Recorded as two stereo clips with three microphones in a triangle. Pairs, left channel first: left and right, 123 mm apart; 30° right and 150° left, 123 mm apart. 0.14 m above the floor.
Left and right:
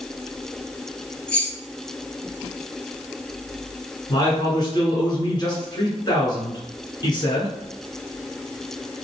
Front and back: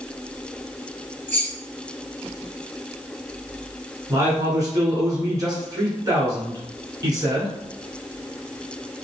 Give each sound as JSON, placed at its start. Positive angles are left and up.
{"t": 1.3, "sound": "keys jangling", "azimuth_deg": 20, "distance_m": 1.1}
{"t": 4.1, "sound": "a man speaking", "azimuth_deg": 115, "distance_m": 1.6}